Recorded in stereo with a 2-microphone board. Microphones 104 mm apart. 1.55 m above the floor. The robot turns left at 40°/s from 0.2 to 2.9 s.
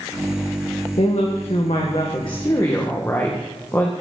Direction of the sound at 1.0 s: 100° left.